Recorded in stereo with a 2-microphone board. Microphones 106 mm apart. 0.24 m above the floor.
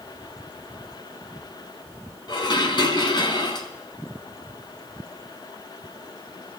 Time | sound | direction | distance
2.3 | dishes clattering | 45° left (ahead or behind) | 1.6 m